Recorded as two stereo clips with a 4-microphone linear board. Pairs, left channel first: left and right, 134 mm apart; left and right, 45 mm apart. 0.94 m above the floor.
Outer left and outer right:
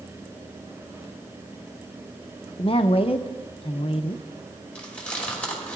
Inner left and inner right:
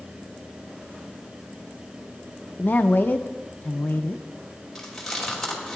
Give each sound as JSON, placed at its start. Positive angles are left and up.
{"t": 2.6, "sound": "a woman speaking", "side_deg": 45, "distance_m": 0.6}
{"t": 4.8, "sound": "chewing", "side_deg": 10, "distance_m": 2.5}